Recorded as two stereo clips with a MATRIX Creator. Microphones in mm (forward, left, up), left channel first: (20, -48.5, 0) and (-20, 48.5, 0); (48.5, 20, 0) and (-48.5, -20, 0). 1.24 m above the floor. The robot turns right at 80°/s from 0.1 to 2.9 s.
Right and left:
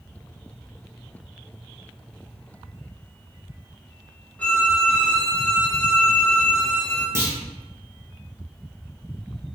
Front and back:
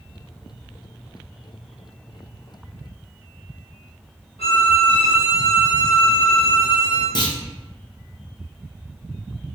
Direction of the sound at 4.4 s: 10° left.